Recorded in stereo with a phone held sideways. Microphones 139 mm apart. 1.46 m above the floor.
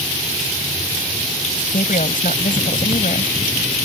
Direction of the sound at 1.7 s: 85° left.